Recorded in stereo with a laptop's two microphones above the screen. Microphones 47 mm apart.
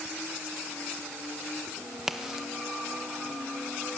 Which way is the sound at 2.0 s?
5° right (ahead or behind).